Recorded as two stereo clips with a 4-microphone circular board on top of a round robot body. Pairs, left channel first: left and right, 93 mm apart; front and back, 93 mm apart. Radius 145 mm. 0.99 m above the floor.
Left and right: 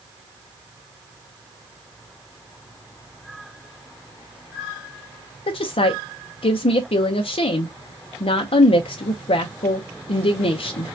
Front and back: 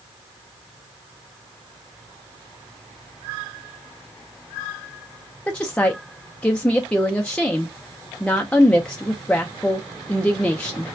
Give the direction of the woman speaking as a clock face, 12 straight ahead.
9 o'clock.